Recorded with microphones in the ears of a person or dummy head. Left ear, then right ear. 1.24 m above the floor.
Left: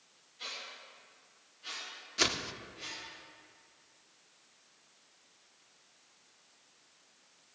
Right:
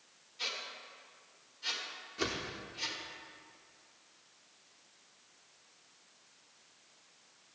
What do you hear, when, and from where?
0.4 s a squeak: 40° right (ahead or behind), 2.5 m
2.2 s a whoosh: 30° left (ahead or behind), 0.6 m